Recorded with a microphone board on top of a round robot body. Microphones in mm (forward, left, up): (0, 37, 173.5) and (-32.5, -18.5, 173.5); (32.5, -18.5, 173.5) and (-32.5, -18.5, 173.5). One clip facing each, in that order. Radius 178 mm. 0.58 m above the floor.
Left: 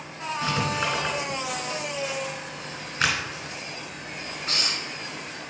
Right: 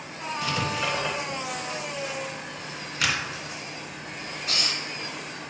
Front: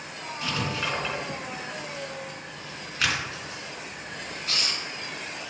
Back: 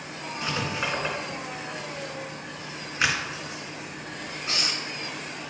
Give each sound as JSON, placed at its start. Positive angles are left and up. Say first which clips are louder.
{"t": 0.4, "sound": "writing", "louder": "left 2 dB, even", "azimuth_deg": 110, "distance_m": 3.0}